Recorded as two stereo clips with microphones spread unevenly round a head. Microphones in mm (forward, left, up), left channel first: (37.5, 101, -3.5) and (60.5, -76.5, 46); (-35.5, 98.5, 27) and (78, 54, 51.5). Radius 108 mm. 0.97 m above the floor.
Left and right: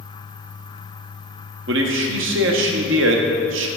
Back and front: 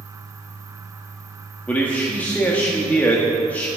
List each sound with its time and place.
1.7 s a man speaking: 120° right, 1.5 m